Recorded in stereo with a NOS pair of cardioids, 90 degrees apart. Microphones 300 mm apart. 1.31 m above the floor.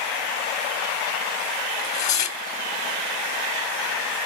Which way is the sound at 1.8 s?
65° left.